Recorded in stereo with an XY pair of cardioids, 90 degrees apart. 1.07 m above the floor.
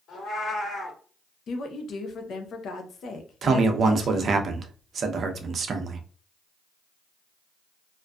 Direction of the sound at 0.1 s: 60° left.